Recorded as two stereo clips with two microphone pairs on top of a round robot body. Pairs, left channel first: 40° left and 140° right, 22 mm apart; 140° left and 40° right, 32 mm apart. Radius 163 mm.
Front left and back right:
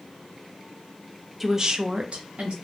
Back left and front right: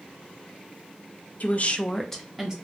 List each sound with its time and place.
1.4 s a woman speaking: 130° left, 0.6 m; by 2.5 s 115° right, 0.7 m